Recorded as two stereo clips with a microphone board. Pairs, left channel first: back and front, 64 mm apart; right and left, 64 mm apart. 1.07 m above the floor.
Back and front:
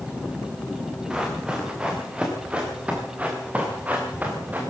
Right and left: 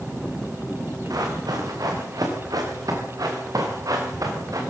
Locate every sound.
1.1 s running footsteps: 80° left, 7 m; by 4.6 s 65° left, 6 m